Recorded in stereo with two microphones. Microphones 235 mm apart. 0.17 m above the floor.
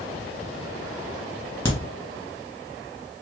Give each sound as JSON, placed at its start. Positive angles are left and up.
{"t": 1.6, "sound": "a crack", "side_deg": 10, "distance_m": 1.9}